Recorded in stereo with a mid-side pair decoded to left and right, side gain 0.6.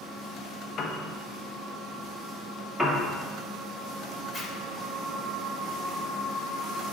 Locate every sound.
0.8 s a piano: 45° left, 1.0 m
2.8 s a piano: straight ahead, 2 m
4.3 s a zipper: 25° left, 1.8 m